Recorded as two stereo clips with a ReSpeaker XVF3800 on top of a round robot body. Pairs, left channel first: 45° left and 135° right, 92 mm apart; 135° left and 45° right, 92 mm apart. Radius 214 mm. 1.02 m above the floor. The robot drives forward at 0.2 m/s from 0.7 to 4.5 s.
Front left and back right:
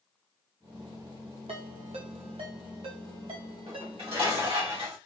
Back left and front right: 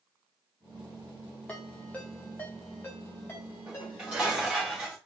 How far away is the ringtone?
About 0.6 m.